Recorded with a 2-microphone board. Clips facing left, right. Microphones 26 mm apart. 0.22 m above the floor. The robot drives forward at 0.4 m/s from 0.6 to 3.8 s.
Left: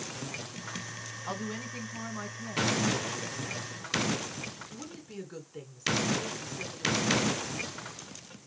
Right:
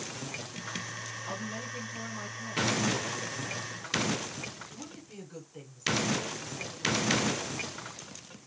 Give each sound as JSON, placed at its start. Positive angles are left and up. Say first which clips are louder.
{"t": 1.3, "sound": "a woman speaking", "louder": "left 3 dB", "side_deg": 35, "distance_m": 1.9}